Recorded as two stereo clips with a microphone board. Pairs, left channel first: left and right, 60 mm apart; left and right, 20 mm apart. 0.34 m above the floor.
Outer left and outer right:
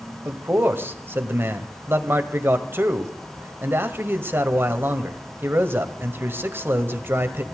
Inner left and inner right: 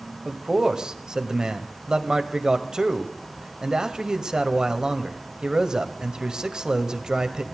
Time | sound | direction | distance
0.2 | a man speaking | 40° right (ahead or behind) | 1.7 m